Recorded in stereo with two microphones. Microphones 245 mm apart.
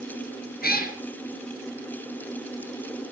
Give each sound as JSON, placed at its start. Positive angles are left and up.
{"t": 0.6, "sound": "a cat meowing", "side_deg": 40, "distance_m": 3.0}